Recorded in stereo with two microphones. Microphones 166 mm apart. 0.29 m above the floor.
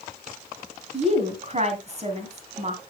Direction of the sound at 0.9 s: 45° right (ahead or behind).